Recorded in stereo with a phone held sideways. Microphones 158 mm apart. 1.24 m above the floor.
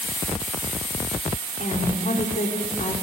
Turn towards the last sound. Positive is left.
turn(degrees=55)  # may be behind; listen again after turning